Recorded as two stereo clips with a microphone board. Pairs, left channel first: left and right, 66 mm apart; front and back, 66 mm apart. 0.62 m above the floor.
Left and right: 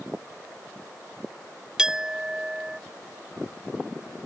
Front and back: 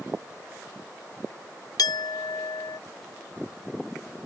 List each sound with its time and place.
1.8 s a clink: 10° right